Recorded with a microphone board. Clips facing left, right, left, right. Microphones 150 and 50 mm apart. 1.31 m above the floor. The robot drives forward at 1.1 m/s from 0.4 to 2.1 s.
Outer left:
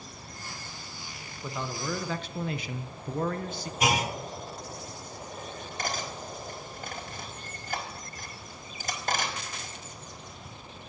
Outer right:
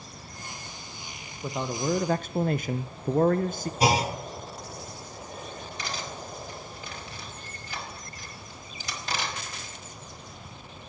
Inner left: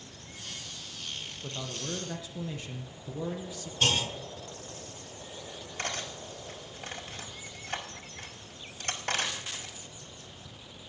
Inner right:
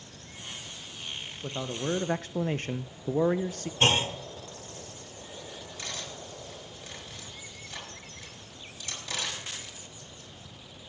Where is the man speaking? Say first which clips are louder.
Outer right 5 dB, inner right 7 dB; 25° right (ahead or behind), 1.2 m; by 3.7 s 50° right (ahead or behind), 0.6 m.